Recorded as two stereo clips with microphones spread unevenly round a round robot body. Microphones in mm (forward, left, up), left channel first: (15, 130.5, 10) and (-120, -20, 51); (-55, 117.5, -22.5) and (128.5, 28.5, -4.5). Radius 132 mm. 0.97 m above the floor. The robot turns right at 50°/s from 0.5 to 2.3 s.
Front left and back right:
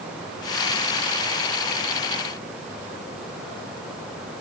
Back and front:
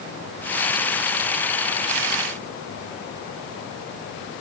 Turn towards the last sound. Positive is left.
No sound to turn to.